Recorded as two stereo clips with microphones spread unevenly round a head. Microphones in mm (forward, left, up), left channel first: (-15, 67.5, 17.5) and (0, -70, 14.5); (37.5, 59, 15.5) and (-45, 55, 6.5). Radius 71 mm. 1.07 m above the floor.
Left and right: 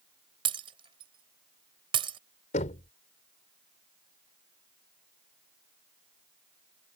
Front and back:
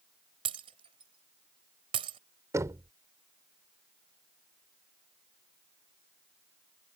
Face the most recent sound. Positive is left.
turn(degrees=130)